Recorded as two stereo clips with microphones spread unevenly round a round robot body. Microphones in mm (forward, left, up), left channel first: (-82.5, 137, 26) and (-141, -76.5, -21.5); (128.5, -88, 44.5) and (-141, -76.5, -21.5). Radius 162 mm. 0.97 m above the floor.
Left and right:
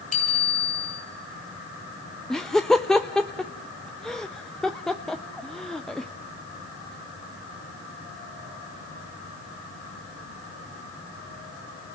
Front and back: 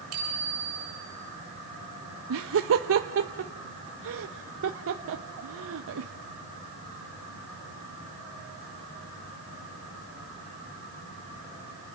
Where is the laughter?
170° left, 1.0 m.